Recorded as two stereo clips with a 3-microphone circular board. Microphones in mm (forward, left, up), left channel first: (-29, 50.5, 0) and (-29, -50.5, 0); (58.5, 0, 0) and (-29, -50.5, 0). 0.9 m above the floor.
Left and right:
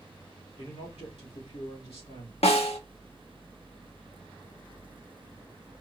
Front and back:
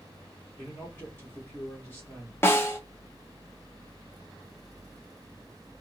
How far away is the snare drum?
About 0.9 m.